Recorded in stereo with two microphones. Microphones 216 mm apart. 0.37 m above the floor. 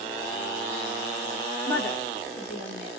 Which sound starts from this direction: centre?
A woman speaking, at 1.7 s.